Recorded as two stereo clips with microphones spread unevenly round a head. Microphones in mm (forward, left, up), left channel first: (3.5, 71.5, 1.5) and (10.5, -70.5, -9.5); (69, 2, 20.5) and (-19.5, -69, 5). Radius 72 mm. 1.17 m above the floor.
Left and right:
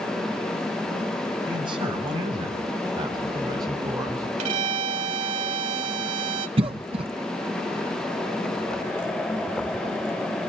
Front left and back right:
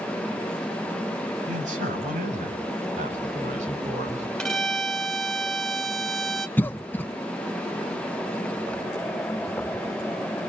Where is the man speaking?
145° right, 7.5 m; by 4.3 s 155° right, 5 m.